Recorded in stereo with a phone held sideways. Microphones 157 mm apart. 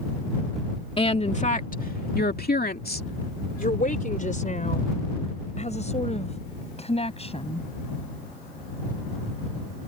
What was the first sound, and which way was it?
A woman speaking, 35° left (ahead or behind).